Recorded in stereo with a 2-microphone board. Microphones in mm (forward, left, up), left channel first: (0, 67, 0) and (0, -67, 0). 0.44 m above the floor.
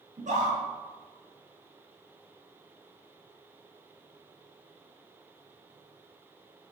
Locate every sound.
0.2 s a scream: 75° right (ahead or behind), 6.5 m